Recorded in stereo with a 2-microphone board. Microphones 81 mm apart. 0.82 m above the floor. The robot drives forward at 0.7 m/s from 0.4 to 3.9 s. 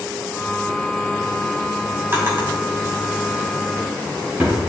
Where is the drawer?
30° right (ahead or behind), 2.5 m; by 4.6 s 20° right (ahead or behind), 3.5 m.